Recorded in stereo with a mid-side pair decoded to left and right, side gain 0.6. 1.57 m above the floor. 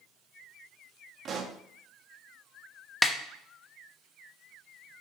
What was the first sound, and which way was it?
A pop, 40° right.